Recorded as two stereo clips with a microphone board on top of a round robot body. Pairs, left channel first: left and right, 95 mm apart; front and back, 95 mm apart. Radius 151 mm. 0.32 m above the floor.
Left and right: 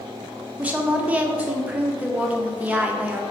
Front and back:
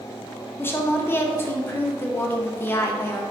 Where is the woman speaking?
30° right, 0.9 m.